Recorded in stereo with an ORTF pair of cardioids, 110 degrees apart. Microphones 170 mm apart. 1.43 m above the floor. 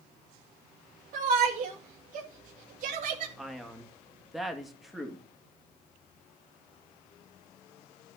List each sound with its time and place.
1.1 s a shout: 55° right, 2 m
3.4 s a man speaking: straight ahead, 2.5 m